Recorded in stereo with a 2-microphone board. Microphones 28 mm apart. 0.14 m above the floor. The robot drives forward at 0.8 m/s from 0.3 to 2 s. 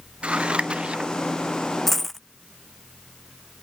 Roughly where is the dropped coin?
Centre.